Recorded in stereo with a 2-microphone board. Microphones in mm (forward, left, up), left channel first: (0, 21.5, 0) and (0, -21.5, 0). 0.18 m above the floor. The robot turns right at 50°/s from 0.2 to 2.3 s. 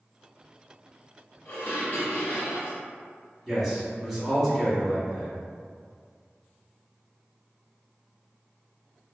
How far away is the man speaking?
About 1.1 m.